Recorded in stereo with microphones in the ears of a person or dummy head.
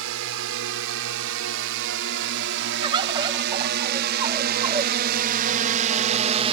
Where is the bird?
25° right (ahead or behind).